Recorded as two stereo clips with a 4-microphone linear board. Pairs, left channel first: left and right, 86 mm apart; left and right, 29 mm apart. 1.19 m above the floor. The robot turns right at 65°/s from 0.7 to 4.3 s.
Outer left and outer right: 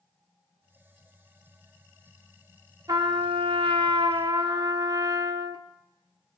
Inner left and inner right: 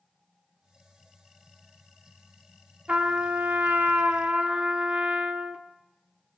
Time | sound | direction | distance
2.9 | a trumpet | 135° right | 0.9 m